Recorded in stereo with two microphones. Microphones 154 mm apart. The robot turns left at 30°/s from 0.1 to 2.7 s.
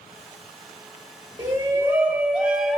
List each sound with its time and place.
1.4 s a shout: 145° right, 1.7 m; by 2.8 s 175° left, 1.7 m